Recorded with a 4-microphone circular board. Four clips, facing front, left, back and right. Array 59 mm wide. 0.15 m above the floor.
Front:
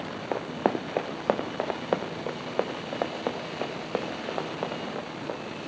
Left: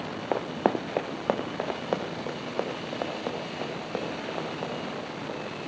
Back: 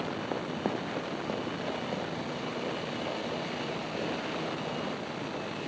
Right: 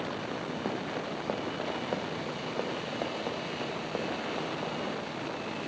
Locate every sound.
0.3 s running footsteps: 65° left, 0.7 m; by 5.4 s 5° left, 4 m